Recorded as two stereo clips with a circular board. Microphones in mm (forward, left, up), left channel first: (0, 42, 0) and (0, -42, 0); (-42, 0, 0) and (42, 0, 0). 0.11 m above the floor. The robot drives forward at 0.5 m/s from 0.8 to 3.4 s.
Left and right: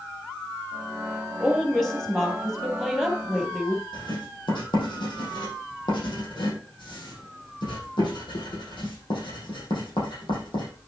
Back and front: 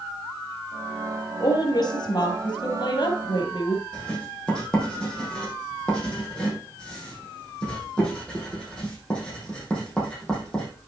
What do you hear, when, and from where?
1.4 s a woman speaking: straight behind, 2 m
3.9 s writing: 100° left, 5 m